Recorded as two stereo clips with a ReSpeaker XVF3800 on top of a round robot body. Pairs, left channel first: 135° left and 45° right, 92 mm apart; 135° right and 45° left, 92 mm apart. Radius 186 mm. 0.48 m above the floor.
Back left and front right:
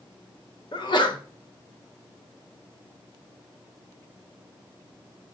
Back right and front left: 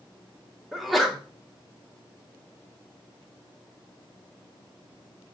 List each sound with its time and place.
0.7 s a sneeze: 135° left, 2 m